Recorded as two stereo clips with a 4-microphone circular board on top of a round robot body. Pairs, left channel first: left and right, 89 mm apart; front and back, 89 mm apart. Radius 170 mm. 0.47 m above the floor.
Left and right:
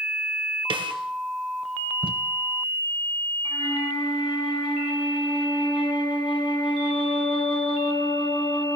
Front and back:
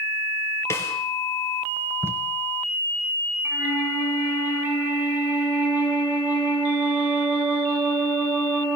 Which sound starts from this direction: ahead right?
A snare drum, at 0.7 s.